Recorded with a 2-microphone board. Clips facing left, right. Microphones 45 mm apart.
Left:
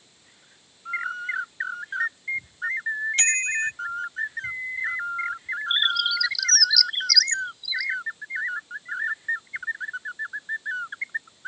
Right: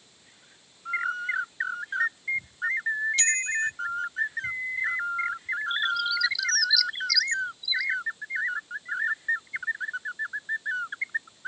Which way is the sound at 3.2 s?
45° left (ahead or behind).